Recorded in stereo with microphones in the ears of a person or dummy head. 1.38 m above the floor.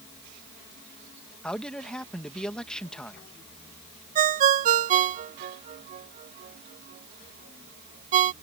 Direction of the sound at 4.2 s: 45° right (ahead or behind).